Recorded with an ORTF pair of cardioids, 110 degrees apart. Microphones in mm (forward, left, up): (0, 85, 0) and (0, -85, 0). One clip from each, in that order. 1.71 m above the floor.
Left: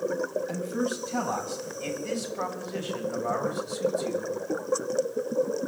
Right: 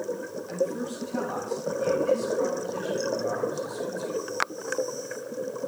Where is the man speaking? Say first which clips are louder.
Right 1 dB; 40° left, 8.5 m; by 4.3 s 65° left, 7.5 m.